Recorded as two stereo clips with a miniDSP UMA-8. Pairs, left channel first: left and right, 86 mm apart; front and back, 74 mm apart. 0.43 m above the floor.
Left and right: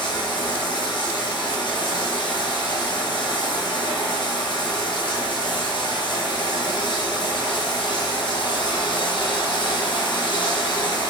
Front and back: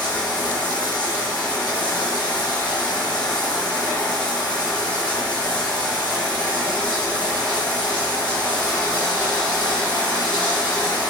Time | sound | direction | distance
0.0 | running water | 75° left | 4.5 m